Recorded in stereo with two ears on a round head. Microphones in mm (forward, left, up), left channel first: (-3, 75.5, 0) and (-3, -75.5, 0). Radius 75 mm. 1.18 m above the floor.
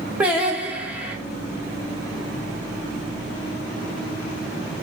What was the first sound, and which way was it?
Singing, 5° right (ahead or behind).